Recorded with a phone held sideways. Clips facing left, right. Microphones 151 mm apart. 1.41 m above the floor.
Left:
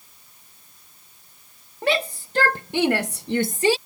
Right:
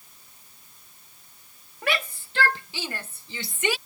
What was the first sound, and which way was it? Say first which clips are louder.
A shout: left 6 dB; 30° left (ahead or behind).